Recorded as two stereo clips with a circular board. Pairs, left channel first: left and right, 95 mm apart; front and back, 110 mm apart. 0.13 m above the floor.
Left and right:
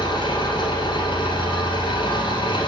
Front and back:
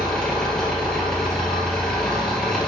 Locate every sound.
0.0 s an engine running: 85° left, 2 m